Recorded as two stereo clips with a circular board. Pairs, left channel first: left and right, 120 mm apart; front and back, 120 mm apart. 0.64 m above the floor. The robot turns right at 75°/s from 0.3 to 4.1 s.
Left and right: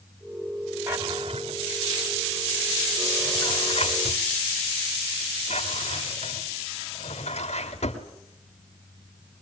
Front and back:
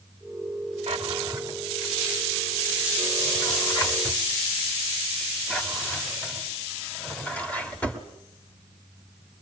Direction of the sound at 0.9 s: 165° right.